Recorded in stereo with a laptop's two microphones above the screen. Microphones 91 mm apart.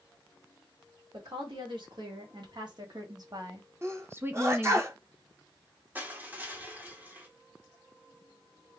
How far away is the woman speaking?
About 2 m.